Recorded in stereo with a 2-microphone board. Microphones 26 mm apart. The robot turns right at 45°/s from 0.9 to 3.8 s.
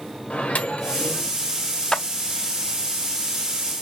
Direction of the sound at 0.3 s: 65° left (ahead or behind).